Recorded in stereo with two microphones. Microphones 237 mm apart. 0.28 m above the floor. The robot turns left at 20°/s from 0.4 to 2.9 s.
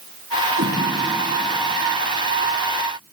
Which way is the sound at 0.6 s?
65° right (ahead or behind).